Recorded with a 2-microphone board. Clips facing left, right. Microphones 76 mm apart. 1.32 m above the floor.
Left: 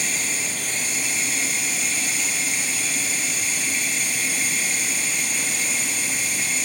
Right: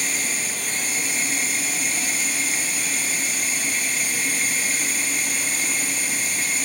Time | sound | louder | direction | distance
0.0 | running water | even | 40° right (ahead or behind) | 0.8 m